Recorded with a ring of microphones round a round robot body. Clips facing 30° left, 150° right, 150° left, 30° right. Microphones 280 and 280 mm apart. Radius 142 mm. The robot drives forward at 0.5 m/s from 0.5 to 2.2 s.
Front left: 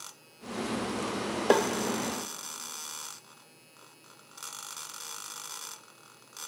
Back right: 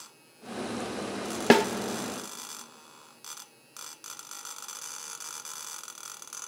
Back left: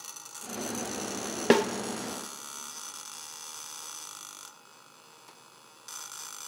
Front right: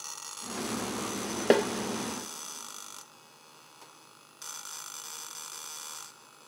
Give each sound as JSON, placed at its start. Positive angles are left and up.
{"t": 1.5, "sound": "a snare drum", "azimuth_deg": -145, "distance_m": 0.7}